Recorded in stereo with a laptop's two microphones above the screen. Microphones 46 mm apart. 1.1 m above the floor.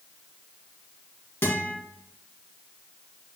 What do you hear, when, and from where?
1.4 s a guitar: 50° left (ahead or behind), 2 m